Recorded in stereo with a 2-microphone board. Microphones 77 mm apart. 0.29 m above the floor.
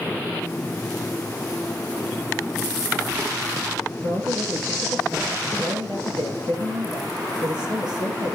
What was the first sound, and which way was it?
A man speaking, 75° right (ahead or behind).